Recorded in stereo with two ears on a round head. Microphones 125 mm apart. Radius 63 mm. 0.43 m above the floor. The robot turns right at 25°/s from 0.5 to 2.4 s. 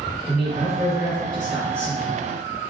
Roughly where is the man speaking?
Ahead right.